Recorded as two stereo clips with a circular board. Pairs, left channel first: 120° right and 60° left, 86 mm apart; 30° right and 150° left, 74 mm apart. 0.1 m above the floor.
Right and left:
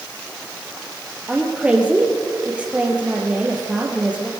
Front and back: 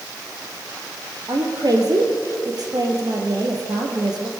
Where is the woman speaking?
135° left, 3.5 m.